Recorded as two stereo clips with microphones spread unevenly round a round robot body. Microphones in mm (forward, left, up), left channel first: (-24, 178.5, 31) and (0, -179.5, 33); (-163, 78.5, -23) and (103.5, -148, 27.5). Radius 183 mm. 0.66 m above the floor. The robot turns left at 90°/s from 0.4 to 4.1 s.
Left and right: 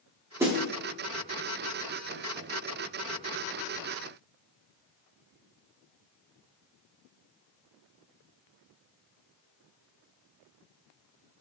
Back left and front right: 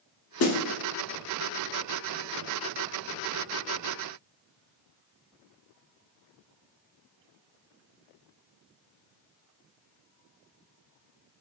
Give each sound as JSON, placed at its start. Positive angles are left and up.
{"t": 0.4, "sound": "a snare drum", "azimuth_deg": -170, "distance_m": 0.6}